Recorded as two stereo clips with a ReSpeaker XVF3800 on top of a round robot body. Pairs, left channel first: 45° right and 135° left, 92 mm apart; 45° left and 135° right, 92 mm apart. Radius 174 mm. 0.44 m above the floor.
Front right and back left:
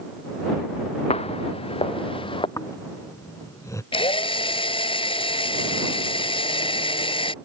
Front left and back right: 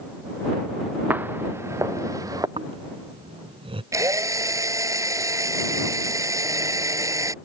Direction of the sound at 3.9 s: 75° right.